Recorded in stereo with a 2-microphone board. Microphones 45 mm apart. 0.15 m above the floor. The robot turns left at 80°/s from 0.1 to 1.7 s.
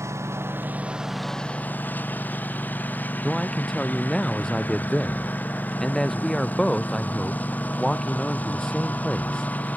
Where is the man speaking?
15° left (ahead or behind).